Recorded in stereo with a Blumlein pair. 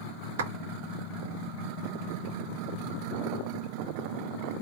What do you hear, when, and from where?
0.4 s a clap: 60° right, 1.6 m